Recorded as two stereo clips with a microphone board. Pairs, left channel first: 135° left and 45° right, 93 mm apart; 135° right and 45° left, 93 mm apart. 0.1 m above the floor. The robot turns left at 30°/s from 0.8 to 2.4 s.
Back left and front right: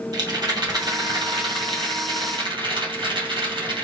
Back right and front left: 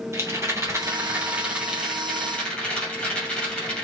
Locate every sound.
0.1 s a rattle: 10° right, 1.9 m; by 3.8 s 55° right, 1.9 m